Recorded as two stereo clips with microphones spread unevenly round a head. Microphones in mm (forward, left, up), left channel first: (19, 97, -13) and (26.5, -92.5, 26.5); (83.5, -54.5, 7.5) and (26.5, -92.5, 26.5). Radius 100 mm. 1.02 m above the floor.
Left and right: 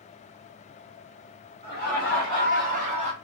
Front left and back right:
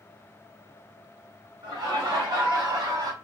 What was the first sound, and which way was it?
Laughter, 135° right.